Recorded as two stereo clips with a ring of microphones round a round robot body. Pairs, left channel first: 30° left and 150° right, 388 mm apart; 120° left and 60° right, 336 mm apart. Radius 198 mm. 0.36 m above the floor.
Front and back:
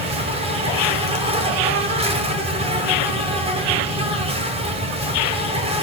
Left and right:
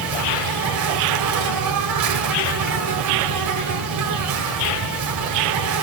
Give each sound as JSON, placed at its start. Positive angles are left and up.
{"t": 0.0, "sound": "an insect", "azimuth_deg": -75, "distance_m": 1.8}